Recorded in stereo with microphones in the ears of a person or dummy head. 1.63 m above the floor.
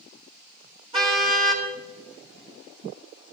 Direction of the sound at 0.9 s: 25° right (ahead or behind).